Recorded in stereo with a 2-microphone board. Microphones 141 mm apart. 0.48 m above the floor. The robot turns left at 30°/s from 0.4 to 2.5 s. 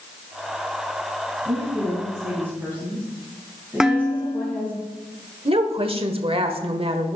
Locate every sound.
1.4 s a woman speaking: 135° right, 4 m; by 4.8 s 165° right, 4 m
3.8 s dishes clattering: 5° right (ahead or behind), 0.9 m
5.5 s a woman speaking: 40° right (ahead or behind), 1.4 m